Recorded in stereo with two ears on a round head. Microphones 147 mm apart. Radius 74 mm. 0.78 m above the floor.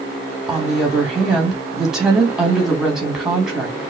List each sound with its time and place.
0.5 s a woman speaking: 5° right (ahead or behind), 1.3 m